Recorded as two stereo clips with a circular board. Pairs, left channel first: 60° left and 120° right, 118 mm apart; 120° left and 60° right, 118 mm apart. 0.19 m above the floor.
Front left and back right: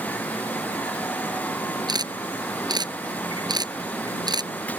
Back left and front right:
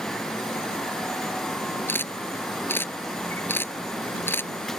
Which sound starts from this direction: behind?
A camera shutter, at 1.9 s.